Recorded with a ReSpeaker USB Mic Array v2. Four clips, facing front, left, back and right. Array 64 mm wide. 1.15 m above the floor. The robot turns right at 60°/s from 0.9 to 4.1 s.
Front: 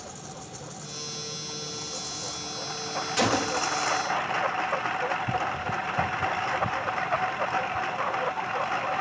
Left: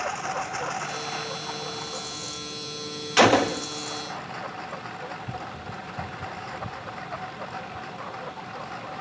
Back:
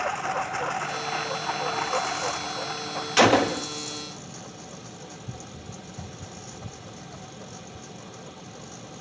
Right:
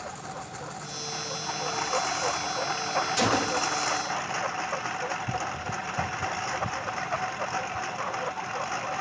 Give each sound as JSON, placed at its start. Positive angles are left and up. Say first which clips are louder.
{"t": 0.0, "sound": "a lawn mower", "louder": "left 8 dB, back 14 dB", "azimuth_deg": 150}
{"t": 3.2, "sound": "a gunshot", "louder": "left 10 dB, back 7 dB", "azimuth_deg": 125}